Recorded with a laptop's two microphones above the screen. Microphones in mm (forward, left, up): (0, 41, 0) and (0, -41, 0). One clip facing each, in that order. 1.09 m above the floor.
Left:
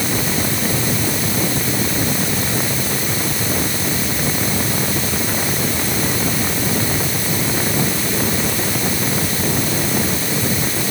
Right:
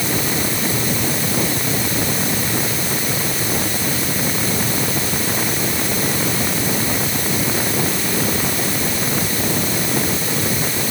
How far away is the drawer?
I don't hear a drawer.